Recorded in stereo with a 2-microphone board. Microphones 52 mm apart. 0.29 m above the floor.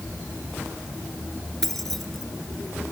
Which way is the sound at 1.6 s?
5° left (ahead or behind).